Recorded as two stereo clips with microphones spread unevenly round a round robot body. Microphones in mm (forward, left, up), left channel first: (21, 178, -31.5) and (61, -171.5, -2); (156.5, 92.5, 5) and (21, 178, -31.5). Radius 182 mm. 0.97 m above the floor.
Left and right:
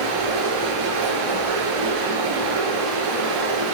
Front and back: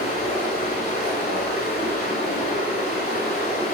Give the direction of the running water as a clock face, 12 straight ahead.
3 o'clock.